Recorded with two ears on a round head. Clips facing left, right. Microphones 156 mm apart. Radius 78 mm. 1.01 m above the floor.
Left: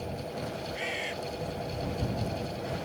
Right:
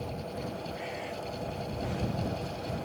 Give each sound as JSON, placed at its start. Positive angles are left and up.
{"t": 0.8, "sound": "a bird", "side_deg": 80}